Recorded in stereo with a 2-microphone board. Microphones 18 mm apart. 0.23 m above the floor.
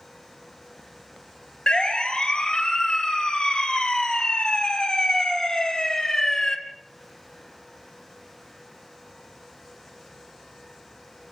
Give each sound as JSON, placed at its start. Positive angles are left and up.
{"t": 1.7, "sound": "a siren", "side_deg": 55, "distance_m": 3.0}